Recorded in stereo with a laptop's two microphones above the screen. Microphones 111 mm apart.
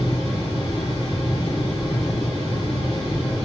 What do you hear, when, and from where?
0.0 s a fan: 55° left (ahead or behind), 2 m